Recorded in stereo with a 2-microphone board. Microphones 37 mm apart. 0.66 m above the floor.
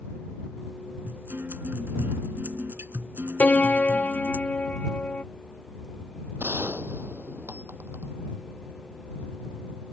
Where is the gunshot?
60° right (ahead or behind).